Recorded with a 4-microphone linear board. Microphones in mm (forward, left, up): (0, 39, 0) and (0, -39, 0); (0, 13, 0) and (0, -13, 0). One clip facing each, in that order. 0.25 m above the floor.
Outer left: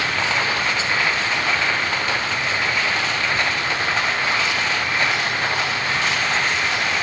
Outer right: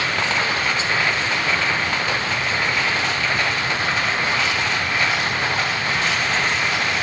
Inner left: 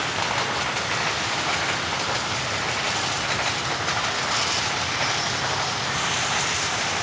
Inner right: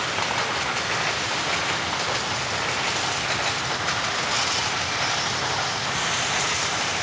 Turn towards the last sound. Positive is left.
No sound to turn to.